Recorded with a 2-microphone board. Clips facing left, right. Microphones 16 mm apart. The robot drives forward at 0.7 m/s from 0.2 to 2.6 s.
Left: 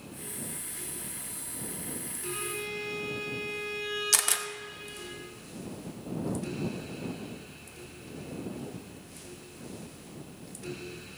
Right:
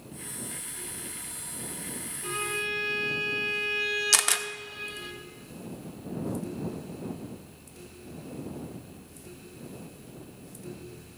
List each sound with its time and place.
2.2 s a violin: 50° right (ahead or behind), 4 m; by 5.1 s 45° right (ahead or behind), 4 m
4.1 s a camera shutter: 20° right (ahead or behind), 0.5 m